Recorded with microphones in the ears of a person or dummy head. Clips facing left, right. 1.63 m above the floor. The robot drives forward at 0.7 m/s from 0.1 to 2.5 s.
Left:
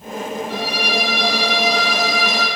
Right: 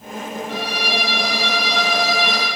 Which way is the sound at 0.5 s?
60° right (ahead or behind).